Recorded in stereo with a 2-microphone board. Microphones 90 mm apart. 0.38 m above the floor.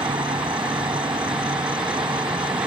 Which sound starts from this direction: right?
An insect, at 0.0 s.